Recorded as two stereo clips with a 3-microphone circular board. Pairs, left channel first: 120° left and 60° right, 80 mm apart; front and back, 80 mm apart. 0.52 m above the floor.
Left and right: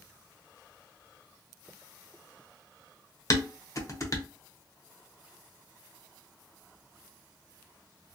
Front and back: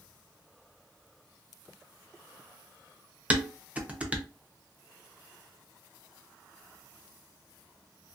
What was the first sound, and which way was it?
Dishes clattering, 115° left.